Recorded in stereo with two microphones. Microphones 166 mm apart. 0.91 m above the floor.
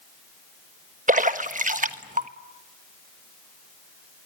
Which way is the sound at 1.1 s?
50° right (ahead or behind).